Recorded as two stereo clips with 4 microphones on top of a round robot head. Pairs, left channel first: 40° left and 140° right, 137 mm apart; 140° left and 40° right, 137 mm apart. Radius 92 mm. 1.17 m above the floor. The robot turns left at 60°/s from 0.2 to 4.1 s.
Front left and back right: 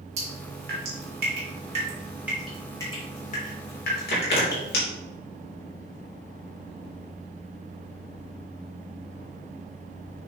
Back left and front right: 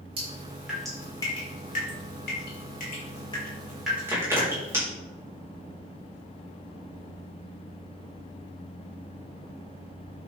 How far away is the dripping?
About 4 m.